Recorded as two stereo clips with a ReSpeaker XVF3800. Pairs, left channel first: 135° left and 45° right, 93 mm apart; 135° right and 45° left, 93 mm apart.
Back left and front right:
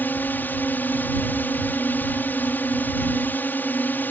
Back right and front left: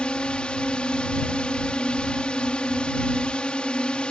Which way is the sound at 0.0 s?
165° left.